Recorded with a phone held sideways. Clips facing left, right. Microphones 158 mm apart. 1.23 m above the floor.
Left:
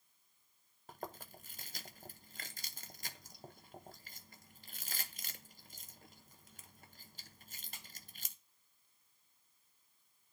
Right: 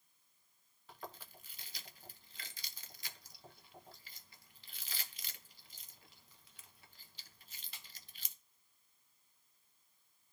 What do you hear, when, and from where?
0.9 s chewing: 45° left (ahead or behind), 0.8 m